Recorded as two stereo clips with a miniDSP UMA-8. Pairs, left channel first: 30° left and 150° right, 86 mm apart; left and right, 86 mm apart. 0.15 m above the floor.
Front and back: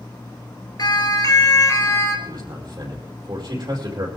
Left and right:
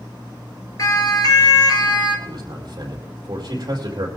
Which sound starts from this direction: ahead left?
A siren, at 0.8 s.